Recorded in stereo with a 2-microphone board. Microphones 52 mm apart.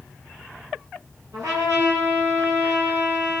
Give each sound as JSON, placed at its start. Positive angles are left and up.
{"t": 1.3, "sound": "a trumpet", "side_deg": -75, "distance_m": 6.0}